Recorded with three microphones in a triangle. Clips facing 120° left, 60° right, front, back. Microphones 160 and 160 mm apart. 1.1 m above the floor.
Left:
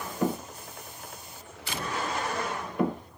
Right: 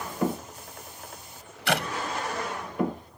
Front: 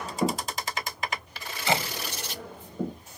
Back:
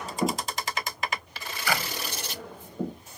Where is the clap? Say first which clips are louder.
Right 9 dB, front 3 dB; 65° right.